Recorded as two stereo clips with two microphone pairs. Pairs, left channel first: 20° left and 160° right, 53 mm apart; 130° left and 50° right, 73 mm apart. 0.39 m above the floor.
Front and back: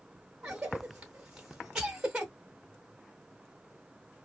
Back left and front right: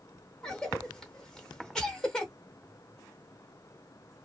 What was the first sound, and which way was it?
A cough, 175° right.